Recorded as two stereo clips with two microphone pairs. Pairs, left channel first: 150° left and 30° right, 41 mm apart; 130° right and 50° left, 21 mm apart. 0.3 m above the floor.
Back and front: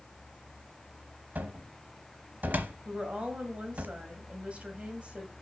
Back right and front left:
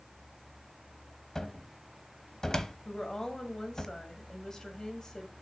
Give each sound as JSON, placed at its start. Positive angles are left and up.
{"t": 1.4, "sound": "a cupboard door", "azimuth_deg": -70, "distance_m": 0.9}
{"t": 2.9, "sound": "a woman speaking", "azimuth_deg": -80, "distance_m": 2.0}